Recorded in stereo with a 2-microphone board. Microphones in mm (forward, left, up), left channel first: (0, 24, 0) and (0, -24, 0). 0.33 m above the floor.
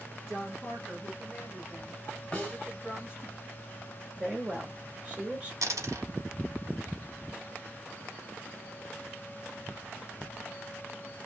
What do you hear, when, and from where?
0.3 s a woman speaking: 5° right (ahead or behind), 1.7 m; by 3.3 s 45° left (ahead or behind), 2 m
2.3 s a snare drum: 25° left (ahead or behind), 1.2 m
4.2 s a woman speaking: 20° right (ahead or behind), 1.4 m
5.6 s a dropped coin: 80° right, 0.9 m